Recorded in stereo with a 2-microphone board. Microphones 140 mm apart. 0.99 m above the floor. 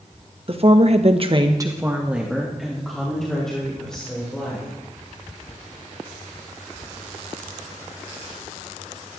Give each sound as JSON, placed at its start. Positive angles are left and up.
{"t": 0.5, "sound": "a woman speaking", "side_deg": -45, "distance_m": 1.4}